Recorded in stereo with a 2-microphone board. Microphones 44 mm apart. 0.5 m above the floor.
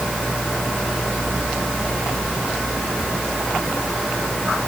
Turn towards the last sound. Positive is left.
No sound to turn to.